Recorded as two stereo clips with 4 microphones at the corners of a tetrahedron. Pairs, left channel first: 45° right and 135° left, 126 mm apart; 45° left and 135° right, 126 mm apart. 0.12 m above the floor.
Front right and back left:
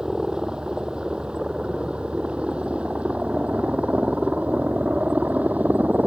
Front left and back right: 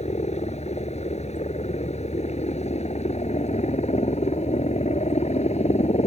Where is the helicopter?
50° left; by 6.1 s 60° left.